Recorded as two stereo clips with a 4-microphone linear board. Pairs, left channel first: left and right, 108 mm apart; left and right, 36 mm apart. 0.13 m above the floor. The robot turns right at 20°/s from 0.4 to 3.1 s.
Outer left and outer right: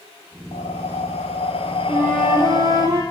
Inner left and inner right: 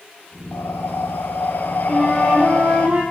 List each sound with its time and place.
0.5 s breathing: 90° left, 0.5 m; by 2.9 s 140° left, 0.5 m
1.9 s a flute: 10° right (ahead or behind), 3 m; by 3.0 s 30° right (ahead or behind), 3 m